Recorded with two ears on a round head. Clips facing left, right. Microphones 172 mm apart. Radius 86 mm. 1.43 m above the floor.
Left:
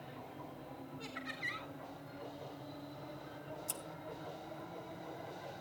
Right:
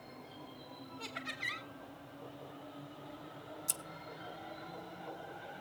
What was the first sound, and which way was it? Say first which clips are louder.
Laughter: even; 50° right (ahead or behind).